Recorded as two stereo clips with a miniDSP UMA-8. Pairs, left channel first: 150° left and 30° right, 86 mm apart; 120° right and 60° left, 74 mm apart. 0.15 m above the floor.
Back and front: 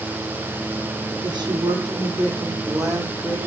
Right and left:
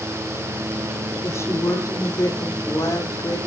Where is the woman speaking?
65° right, 5.5 m; by 3.4 s 90° right, 5.5 m.